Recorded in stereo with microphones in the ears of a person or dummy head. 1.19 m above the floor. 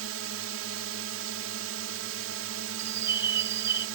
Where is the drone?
75° right (ahead or behind).